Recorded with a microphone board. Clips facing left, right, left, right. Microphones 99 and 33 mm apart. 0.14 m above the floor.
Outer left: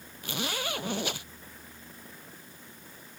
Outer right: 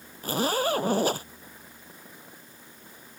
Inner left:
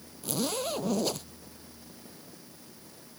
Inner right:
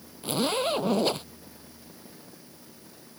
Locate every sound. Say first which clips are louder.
0.2 s a zipper: outer right 9 dB, inner right 5 dB; 40° right (ahead or behind)